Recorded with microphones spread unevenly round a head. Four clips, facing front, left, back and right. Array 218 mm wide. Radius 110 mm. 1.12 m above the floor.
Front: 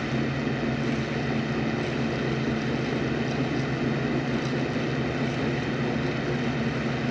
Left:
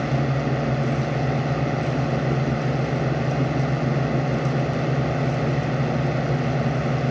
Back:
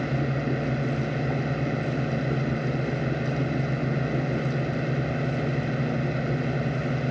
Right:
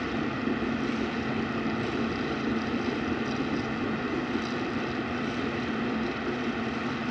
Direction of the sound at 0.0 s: 110° left.